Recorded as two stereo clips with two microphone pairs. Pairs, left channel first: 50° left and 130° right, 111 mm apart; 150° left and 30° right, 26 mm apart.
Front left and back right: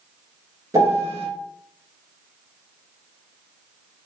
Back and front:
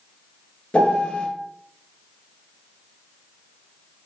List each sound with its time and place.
0.7 s a piano: 170° left, 2 m